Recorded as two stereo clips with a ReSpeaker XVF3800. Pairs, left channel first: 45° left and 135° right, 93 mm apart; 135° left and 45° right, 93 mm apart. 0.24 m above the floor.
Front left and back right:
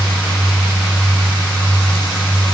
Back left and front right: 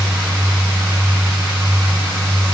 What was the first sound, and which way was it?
Only background noise.